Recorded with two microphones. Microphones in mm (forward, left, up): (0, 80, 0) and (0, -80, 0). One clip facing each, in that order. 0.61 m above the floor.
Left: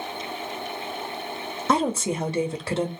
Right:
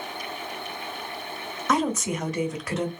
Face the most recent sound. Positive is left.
turn(degrees=30)  # may be behind; listen again after turning